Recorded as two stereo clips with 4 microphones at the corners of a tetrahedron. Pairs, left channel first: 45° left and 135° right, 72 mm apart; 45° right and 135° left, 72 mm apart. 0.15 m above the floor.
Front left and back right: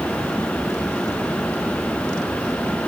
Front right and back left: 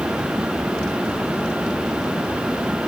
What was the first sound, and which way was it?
Only background noise.